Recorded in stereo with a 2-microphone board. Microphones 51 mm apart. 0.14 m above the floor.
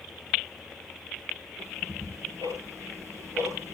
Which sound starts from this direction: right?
Ticking, at 1.6 s.